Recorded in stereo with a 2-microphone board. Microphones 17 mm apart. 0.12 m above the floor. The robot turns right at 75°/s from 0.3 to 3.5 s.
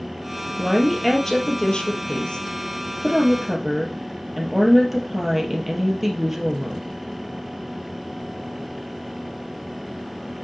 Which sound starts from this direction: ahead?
A woman speaking, at 0.6 s.